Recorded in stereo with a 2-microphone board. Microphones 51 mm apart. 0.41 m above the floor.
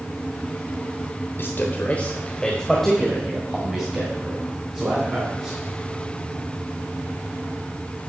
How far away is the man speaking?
About 1.1 m.